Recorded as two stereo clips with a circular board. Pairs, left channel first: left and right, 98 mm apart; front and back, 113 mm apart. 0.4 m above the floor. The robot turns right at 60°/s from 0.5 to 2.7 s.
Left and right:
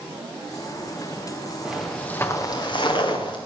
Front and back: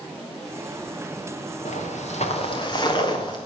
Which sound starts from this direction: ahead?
Footsteps, at 1.6 s.